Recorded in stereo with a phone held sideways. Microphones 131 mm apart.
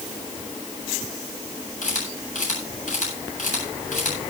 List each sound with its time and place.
1.8 s a camera shutter: 70° left (ahead or behind), 8.5 m